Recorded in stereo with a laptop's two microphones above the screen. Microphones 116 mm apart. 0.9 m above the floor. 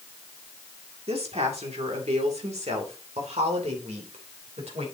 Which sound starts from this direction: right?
A woman speaking, at 1.1 s.